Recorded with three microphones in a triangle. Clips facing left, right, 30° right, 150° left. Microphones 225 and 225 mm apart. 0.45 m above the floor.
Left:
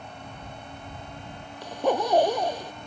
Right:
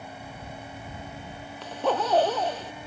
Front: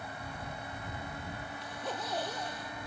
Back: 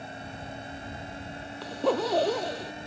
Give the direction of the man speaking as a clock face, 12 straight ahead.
No man speaking in this recording.